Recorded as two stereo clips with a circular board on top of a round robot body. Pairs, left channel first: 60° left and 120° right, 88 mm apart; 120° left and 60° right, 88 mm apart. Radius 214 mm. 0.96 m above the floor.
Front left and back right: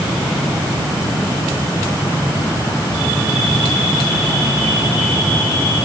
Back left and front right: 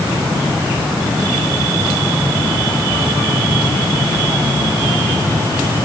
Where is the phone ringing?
No phone ringing in this recording.